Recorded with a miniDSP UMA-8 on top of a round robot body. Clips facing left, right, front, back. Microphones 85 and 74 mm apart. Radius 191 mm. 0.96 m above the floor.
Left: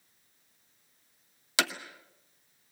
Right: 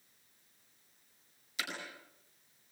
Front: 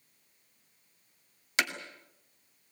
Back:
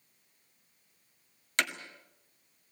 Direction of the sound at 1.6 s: 85° left.